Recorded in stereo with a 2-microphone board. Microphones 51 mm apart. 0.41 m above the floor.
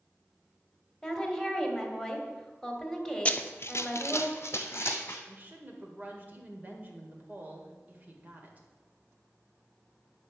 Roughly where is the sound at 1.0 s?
Centre.